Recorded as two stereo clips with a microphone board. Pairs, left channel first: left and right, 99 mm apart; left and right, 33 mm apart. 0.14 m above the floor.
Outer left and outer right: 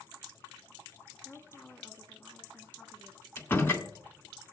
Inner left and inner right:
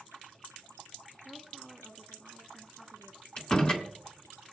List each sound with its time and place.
1.2 s a woman speaking: 15° left (ahead or behind), 1.0 m
3.4 s a door slam: 20° left (ahead or behind), 1.0 m